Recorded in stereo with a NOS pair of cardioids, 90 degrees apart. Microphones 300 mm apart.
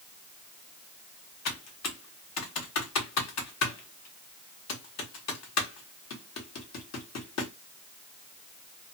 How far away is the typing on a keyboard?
About 1.1 m.